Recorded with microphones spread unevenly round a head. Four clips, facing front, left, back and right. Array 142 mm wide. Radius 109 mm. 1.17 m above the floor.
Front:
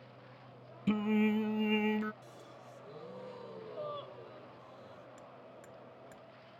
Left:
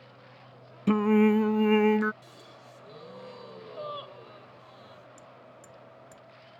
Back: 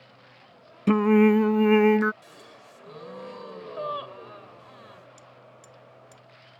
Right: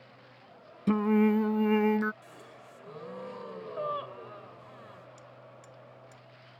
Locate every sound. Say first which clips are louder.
0.9 s singing: left 3 dB, back 13 dB; 165° left
2.2 s a gasp: even, back 3 dB; 175° right
5.2 s hammering: left 1 dB, back 2 dB; 35° left